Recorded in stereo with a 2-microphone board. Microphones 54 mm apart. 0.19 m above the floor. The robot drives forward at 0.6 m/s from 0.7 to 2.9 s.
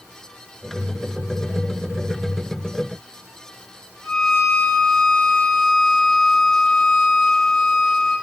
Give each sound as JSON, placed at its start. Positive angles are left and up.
{"t": 4.0, "sound": "a violin", "side_deg": 5, "distance_m": 2.5}